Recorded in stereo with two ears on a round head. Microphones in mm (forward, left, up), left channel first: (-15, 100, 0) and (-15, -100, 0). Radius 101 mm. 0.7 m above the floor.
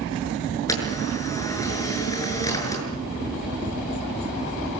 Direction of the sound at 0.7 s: 15° left (ahead or behind).